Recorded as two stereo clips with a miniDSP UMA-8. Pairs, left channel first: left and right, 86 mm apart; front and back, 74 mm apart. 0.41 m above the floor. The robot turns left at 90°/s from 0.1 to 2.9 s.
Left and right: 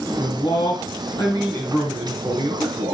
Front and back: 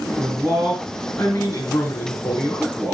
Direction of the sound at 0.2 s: 145° left.